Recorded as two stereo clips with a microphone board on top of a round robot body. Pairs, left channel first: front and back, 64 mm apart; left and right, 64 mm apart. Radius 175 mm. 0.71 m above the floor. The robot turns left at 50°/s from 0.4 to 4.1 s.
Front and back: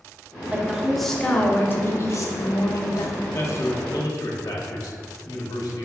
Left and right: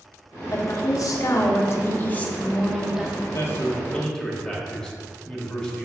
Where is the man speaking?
55° left, 1.1 m; by 5.8 s 10° left, 1.1 m.